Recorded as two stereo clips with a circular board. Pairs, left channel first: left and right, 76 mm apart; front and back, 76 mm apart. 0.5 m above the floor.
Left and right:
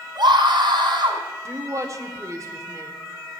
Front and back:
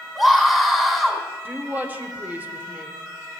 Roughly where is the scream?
Right.